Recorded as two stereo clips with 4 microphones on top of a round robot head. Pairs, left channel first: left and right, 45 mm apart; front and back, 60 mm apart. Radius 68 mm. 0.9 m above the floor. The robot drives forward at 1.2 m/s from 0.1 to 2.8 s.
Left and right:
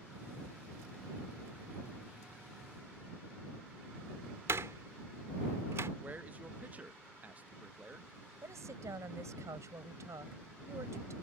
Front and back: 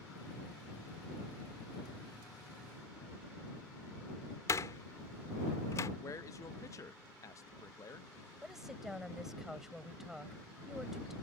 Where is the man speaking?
35° right.